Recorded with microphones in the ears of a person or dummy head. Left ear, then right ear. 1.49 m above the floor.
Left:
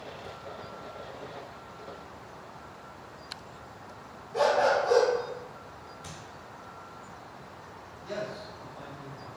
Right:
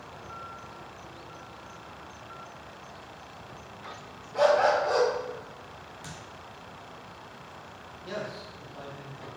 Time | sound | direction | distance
4.3 | a dog barking | 20° left (ahead or behind) | 1.5 m
6.0 | a thud | 25° right (ahead or behind) | 1.2 m
8.0 | a man speaking | 25° right (ahead or behind) | 1.5 m